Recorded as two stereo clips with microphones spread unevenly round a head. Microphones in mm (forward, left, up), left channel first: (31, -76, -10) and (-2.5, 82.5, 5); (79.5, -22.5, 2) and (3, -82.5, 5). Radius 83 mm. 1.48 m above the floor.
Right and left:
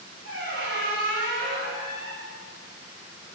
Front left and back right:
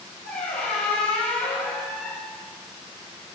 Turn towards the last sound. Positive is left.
turn(degrees=80)